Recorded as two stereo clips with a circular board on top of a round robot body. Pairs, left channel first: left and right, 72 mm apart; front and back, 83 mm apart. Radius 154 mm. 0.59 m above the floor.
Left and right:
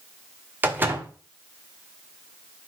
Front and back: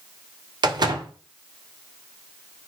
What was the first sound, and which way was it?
A door slam, 150° right.